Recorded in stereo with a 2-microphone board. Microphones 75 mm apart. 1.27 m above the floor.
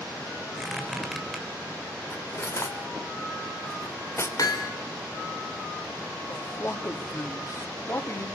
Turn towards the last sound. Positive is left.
turn(degrees=40)  # may be behind; listen again after turning